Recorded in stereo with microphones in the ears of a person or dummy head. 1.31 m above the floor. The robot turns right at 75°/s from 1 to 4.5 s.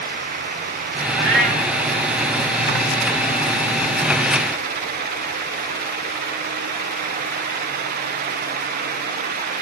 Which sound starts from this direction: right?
A cat meowing, at 1.1 s.